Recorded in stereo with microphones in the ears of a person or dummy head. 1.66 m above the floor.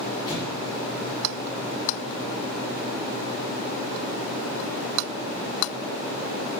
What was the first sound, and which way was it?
An explosion, 25° left (ahead or behind).